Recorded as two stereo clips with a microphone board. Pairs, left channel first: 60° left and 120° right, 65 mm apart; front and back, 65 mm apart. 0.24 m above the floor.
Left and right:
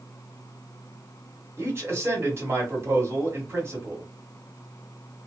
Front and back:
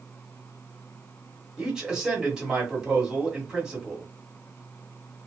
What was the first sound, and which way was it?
A man speaking, 105° right.